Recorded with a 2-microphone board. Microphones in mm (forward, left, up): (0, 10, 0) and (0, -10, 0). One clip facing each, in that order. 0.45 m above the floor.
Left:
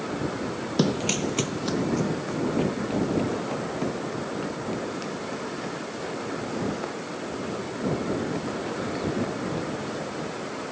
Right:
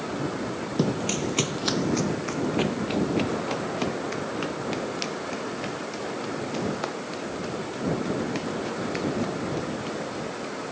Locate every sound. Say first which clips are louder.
0.8 s running footsteps: left 2 dB; 50° left (ahead or behind); by 10.5 s 80° right